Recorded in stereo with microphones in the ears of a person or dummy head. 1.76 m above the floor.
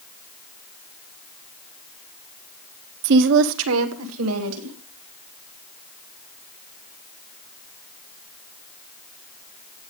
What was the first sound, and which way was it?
A woman speaking, 55° right (ahead or behind).